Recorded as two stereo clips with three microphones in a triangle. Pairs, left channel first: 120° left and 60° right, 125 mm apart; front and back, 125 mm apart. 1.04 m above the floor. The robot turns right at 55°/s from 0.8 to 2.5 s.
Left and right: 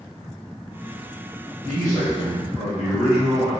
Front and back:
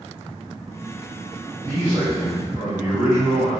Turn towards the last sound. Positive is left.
turn(degrees=-20)